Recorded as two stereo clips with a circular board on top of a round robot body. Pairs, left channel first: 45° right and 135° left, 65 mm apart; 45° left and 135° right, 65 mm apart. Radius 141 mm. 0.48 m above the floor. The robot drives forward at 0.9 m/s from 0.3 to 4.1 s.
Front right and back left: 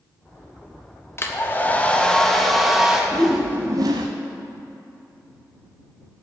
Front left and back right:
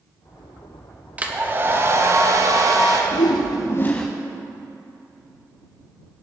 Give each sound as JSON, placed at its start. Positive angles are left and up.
{"t": 1.2, "sound": "a hair dryer", "azimuth_deg": -75, "distance_m": 1.5}
{"t": 3.1, "sound": "a whoosh", "azimuth_deg": 40, "distance_m": 0.7}